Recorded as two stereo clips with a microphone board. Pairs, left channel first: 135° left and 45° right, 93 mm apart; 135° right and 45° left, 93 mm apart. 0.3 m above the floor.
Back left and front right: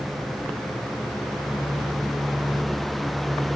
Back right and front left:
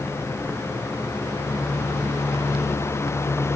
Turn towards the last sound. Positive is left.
No sound to turn to.